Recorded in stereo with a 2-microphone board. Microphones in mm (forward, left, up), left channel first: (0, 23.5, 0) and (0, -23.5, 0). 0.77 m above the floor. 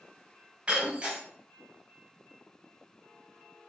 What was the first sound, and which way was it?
Breaking glass, 30° right (ahead or behind).